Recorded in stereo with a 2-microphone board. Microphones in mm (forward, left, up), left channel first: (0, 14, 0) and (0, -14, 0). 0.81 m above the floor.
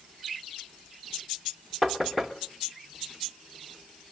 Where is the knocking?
5° left (ahead or behind), 2 m.